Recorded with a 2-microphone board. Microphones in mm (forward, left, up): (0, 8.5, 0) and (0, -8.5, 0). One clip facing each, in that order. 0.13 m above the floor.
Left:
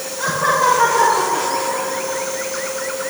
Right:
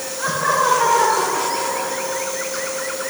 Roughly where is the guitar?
I don't hear a guitar.